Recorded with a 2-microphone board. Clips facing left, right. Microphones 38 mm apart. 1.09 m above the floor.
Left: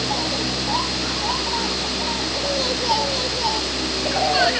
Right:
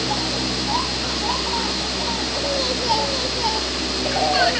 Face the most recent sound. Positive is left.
No sound to turn to.